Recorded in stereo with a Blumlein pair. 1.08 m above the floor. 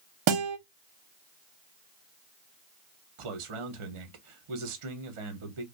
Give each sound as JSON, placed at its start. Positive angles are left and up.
{"t": 0.3, "sound": "a guitar", "azimuth_deg": -45, "distance_m": 0.8}
{"t": 3.2, "sound": "a man speaking", "azimuth_deg": -55, "distance_m": 0.9}